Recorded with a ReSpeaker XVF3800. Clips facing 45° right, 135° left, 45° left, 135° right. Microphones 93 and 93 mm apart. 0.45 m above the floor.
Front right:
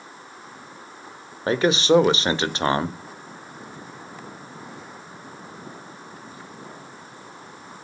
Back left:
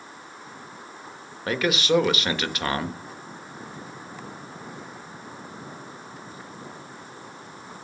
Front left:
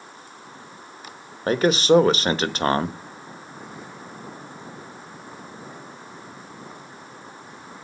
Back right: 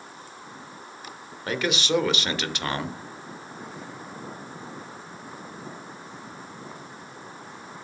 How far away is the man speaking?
About 1.0 m.